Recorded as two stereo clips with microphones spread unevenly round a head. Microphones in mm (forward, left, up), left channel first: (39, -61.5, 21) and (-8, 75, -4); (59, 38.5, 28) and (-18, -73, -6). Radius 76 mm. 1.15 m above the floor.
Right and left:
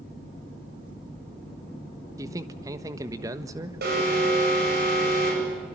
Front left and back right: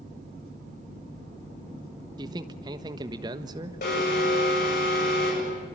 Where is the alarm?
90° left, 8.5 m.